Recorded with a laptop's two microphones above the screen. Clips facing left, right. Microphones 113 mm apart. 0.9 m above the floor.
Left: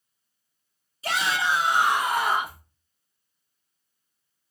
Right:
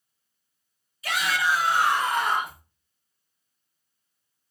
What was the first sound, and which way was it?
A shout, 35° left (ahead or behind).